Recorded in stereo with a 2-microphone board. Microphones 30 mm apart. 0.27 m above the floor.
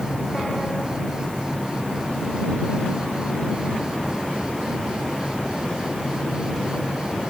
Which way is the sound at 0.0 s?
25° right (ahead or behind).